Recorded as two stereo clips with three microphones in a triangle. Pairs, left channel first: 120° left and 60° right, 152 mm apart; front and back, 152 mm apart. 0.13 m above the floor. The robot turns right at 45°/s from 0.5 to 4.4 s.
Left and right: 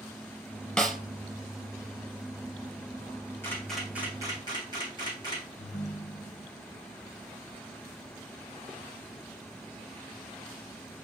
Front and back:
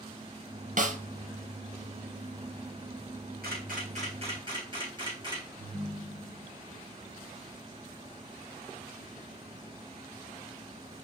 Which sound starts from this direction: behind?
A camera shutter, at 3.4 s.